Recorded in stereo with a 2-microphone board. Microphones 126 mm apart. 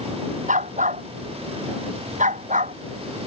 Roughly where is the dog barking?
Right.